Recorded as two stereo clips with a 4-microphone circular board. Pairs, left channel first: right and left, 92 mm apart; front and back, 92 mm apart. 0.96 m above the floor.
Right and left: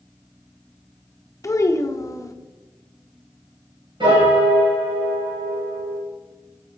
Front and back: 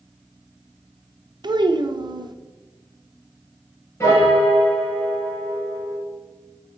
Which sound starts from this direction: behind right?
A child speaking, at 1.4 s.